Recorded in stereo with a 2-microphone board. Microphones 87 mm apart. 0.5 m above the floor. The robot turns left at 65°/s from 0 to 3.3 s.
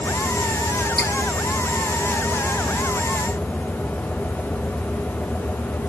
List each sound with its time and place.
1.0 s dripping: 5° left (ahead or behind), 3 m; by 1.1 s 15° left (ahead or behind), 3 m